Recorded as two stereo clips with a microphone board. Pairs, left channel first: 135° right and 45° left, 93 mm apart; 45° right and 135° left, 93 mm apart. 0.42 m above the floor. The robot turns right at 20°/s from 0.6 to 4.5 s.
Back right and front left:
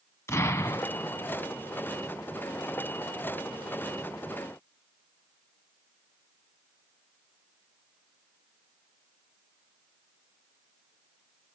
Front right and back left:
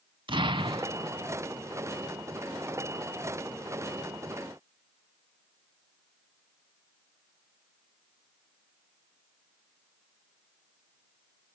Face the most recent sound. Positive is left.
turn(degrees=-120)